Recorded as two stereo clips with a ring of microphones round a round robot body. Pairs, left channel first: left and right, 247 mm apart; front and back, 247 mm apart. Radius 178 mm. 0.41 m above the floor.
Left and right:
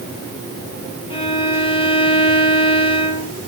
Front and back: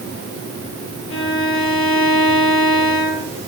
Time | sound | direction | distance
1.1 | a violin | 25° left | 8.5 m